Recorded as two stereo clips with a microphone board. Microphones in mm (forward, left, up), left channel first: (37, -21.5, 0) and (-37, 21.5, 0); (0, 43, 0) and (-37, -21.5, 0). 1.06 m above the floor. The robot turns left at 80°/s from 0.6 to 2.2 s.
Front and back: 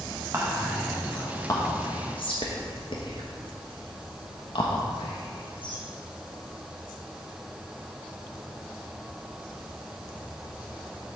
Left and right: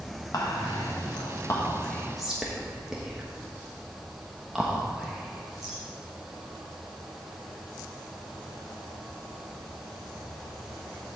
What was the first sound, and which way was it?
Whispering, 90° left.